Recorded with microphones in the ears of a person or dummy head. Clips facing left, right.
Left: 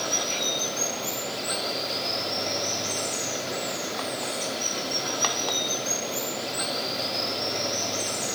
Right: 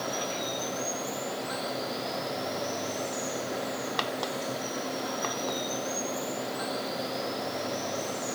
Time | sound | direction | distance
0.0 | running water | 40° left (ahead or behind) | 3 m